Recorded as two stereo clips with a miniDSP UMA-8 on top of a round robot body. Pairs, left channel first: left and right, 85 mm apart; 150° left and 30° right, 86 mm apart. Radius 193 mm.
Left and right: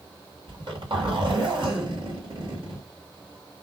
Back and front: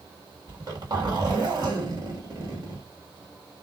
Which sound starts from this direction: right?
A zipper, at 0.5 s.